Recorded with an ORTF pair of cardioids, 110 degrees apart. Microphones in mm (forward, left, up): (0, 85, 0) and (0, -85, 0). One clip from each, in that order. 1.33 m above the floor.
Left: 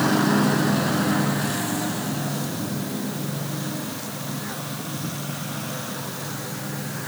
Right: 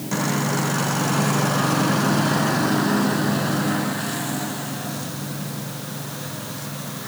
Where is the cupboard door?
No cupboard door in this recording.